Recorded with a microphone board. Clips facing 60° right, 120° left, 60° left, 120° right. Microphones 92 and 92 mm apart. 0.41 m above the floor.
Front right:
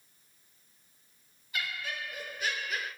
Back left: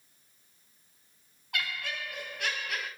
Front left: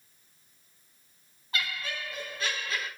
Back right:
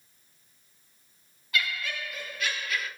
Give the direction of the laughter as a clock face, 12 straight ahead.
8 o'clock.